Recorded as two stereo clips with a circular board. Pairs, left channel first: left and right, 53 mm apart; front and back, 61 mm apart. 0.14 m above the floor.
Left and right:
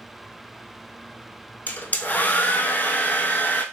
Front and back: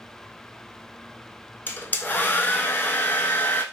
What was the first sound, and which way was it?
A hair dryer, 50° left.